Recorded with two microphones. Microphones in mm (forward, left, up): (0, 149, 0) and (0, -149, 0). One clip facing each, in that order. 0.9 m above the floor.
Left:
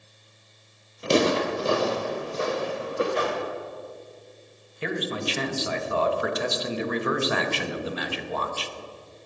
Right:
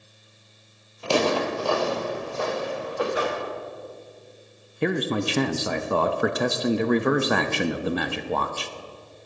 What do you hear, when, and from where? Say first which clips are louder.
1.0 s footsteps: left 1 dB; 20° left (ahead or behind), 1.1 m
3.1 s a whoosh: even; 10° right (ahead or behind), 2.5 m
4.8 s a man speaking: right 5 dB; 55° right (ahead or behind), 0.7 m